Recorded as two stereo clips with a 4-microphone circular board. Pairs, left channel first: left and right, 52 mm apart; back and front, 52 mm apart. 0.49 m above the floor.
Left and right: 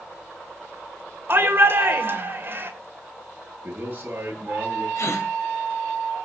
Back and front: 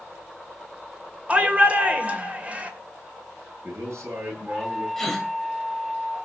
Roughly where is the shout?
Ahead right.